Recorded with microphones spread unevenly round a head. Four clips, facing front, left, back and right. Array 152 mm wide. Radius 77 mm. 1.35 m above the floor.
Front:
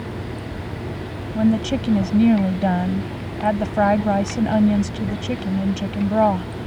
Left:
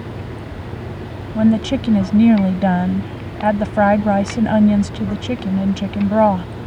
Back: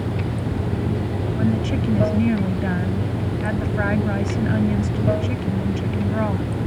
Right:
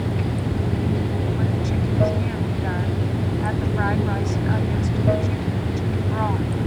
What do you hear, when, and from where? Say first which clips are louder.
0.0 s running water: right 5 dB, back 4 dB; 135° right
1.4 s a woman speaking: left 9 dB, front 5 dB; 80° left